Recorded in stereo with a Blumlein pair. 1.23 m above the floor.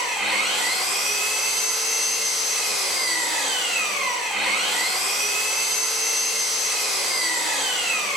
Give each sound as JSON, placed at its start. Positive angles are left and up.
{"t": 0.0, "sound": "an engine running", "azimuth_deg": 10, "distance_m": 2.5}